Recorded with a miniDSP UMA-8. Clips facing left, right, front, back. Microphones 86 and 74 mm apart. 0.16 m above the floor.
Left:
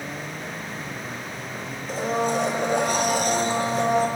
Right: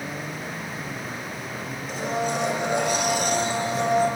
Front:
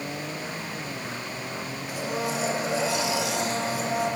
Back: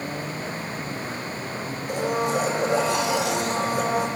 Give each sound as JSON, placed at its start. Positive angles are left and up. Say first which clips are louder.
{"t": 1.9, "sound": "a blender", "louder": "left 3 dB, back 6 dB", "azimuth_deg": 140, "distance_m": 1.3}